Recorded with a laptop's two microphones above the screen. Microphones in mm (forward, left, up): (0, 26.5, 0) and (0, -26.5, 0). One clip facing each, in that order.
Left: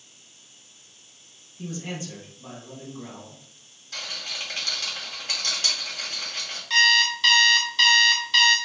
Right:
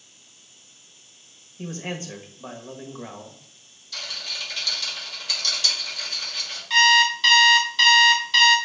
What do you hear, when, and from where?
1.6 s a man speaking: 40° right (ahead or behind), 1.3 m
3.9 s a rattle: 40° left (ahead or behind), 3 m
6.7 s an alarm clock: 5° right (ahead or behind), 0.7 m